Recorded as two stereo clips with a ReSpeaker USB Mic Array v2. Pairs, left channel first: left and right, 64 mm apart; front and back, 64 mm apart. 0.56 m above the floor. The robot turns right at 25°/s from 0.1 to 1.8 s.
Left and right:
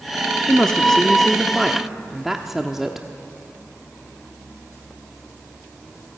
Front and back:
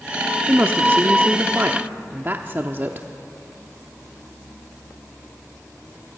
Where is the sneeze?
I don't hear a sneeze.